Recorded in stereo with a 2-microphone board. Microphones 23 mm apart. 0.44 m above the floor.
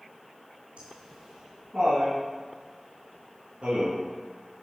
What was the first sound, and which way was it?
Laughter, 65° right (ahead or behind).